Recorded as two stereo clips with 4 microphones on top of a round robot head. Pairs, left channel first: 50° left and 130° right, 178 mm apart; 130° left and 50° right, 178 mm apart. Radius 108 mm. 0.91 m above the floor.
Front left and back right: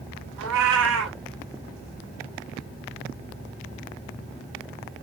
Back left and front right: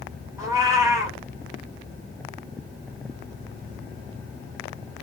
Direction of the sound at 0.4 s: 125° right.